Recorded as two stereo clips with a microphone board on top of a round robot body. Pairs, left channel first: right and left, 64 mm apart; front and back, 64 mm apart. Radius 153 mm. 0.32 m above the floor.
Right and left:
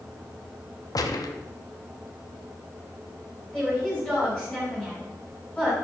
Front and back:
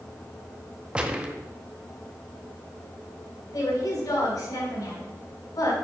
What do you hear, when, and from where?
0.9 s a gunshot: 105° right, 0.9 m
3.5 s a woman speaking: 5° right, 4.5 m